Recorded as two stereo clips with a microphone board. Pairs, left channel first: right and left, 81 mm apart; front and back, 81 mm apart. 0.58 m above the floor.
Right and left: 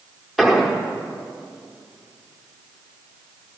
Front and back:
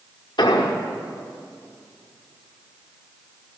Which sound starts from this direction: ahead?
An explosion, at 0.4 s.